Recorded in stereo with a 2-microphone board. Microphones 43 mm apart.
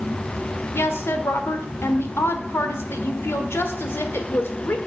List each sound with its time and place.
0.7 s a woman speaking: 65° left (ahead or behind), 1.6 m